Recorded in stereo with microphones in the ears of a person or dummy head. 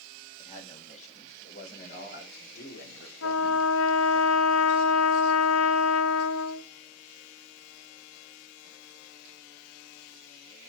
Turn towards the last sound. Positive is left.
turn(degrees=80)